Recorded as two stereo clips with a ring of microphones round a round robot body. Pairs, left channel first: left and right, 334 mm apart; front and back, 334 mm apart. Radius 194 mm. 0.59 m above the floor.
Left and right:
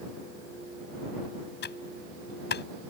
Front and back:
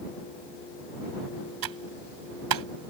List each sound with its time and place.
1.6 s typing on a keyboard: 155° left